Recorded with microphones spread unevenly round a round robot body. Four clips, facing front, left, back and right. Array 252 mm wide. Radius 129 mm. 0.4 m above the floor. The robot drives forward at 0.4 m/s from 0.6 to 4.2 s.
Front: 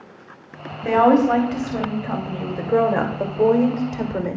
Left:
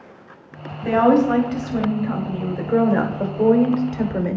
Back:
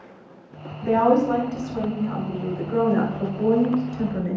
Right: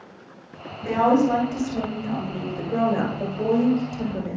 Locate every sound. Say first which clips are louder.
0.8 s a woman speaking: left 3 dB, front 3 dB; 15° left, 2.5 m; by 4.4 s 35° left, 1.4 m